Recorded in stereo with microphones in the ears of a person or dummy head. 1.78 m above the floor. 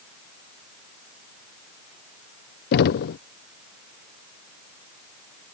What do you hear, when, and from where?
2.7 s knocking: 55° left (ahead or behind)